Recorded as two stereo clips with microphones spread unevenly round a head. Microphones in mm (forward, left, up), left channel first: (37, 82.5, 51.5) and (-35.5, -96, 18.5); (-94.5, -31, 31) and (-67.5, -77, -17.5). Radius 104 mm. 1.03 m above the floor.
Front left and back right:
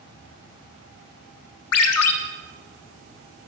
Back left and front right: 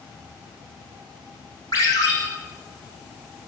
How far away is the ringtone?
About 0.6 m.